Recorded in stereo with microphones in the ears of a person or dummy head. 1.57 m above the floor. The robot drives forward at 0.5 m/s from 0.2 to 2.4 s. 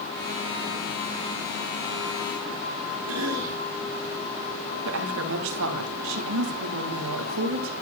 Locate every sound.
3.1 s a cough: 80° right, 3 m
4.8 s a woman speaking: 75° right (ahead or behind), 2 m